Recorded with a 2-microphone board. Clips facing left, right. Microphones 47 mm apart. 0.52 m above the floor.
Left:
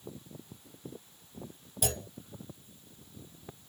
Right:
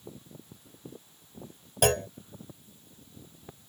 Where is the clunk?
65° right (ahead or behind).